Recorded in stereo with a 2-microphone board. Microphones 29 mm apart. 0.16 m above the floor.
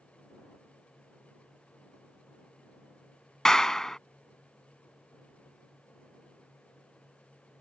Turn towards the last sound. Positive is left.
turn(degrees=20)  # may be behind; listen again after turning